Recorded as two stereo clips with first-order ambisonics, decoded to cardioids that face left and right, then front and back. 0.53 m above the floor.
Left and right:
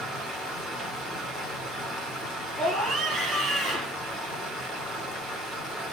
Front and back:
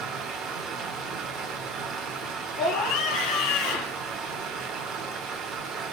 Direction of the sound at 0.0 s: 145° right.